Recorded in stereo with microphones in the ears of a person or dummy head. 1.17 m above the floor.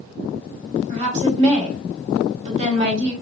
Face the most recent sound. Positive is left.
turn(degrees=-40)  # may be behind; listen again after turning